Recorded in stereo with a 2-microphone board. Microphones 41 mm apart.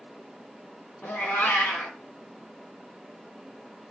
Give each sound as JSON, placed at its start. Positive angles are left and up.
{"t": 1.0, "sound": "a cat meowing", "side_deg": 80, "distance_m": 0.7}